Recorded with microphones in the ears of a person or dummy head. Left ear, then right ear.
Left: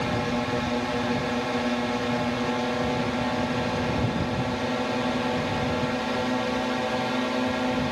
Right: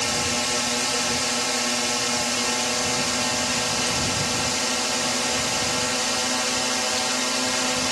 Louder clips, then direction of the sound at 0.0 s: Right 3 dB; 65° right (ahead or behind).